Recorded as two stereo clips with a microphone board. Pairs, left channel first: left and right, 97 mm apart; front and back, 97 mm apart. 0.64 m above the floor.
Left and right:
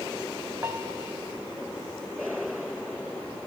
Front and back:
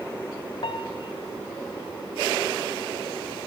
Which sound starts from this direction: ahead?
A piano, at 0.6 s.